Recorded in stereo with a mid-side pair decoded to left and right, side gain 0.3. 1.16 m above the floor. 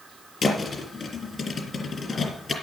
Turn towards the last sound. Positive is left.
turn(degrees=55)